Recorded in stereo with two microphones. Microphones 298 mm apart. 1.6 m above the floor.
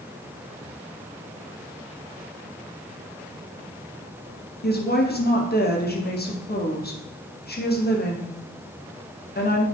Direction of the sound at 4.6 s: 30° left (ahead or behind).